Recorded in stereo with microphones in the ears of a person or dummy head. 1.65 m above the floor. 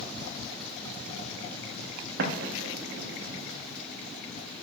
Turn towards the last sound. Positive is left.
turn(degrees=-60)  # may be behind; listen again after turning